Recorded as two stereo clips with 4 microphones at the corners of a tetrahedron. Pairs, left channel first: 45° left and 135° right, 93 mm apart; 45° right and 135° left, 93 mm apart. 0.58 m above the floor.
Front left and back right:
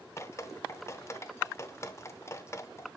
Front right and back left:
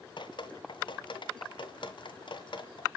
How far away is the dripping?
About 0.7 m.